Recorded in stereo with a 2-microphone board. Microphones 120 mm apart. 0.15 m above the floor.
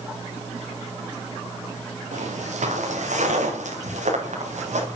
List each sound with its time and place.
2.1 s footsteps: 80° right, 4.5 m; by 5.0 s 75° right (ahead or behind), 7.5 m